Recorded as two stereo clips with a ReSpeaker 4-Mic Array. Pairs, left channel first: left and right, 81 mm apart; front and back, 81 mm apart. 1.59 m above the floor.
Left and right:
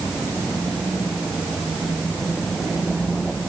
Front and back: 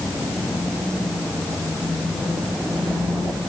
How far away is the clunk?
No clunk in this recording.